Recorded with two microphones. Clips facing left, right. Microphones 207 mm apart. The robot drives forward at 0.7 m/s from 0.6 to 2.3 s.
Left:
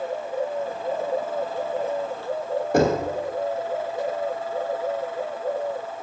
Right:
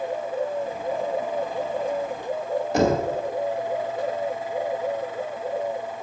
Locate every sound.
2.7 s knocking: 55° left (ahead or behind), 2 m